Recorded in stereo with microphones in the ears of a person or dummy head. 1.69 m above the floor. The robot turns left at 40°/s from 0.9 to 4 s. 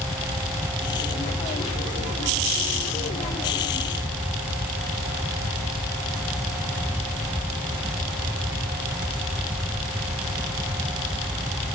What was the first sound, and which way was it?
Only background noise.